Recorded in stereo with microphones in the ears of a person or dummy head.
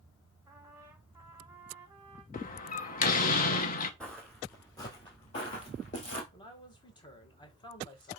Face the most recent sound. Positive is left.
turn(degrees=20)  # may be behind; listen again after turning